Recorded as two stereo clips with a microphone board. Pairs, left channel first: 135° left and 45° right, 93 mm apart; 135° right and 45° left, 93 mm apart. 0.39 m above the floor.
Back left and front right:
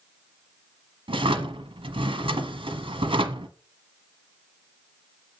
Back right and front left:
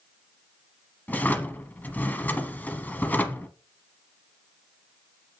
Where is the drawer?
65° right, 1.1 m.